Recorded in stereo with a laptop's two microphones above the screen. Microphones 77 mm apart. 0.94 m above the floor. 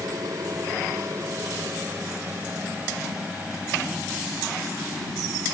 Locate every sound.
0.0 s an aircraft: 60° right (ahead or behind); by 5.5 s 5° right (ahead or behind)